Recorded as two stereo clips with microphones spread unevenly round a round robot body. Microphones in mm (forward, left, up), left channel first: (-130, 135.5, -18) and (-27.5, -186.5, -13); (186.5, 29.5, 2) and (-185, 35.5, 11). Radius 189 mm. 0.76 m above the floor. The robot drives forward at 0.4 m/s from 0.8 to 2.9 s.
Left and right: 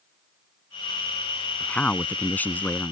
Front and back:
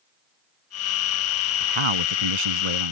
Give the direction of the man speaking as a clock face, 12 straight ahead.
6 o'clock.